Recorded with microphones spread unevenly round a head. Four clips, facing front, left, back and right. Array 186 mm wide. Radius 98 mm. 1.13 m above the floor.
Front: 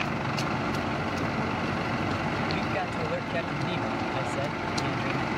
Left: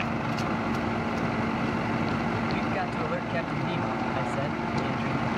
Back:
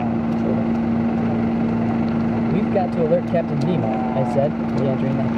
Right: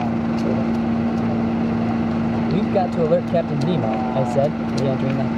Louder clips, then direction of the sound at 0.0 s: Right 8 dB, back 9 dB; 140° right.